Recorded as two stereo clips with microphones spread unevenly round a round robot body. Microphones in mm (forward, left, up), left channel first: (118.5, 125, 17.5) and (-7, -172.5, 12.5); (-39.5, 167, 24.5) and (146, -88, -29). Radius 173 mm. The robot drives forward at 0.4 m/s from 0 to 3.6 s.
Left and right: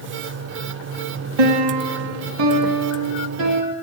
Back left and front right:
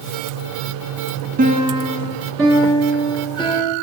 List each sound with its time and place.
1.4 s a piano: 120° right, 0.6 m; by 3.7 s 155° right, 1.3 m